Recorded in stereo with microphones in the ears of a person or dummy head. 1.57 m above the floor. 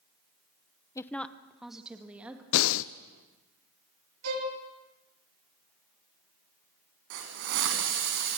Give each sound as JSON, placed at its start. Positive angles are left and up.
{"t": 0.9, "sound": "a woman speaking", "side_deg": 15, "distance_m": 0.6}
{"t": 2.5, "sound": "breathing", "side_deg": 70, "distance_m": 0.6}
{"t": 4.2, "sound": "a violin", "side_deg": -90, "distance_m": 4.0}
{"t": 7.1, "sound": "a hiss", "side_deg": -60, "distance_m": 3.5}